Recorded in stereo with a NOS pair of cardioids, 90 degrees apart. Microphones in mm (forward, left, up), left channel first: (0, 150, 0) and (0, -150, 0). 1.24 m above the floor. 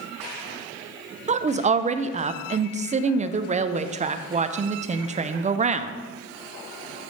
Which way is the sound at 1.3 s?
25° right.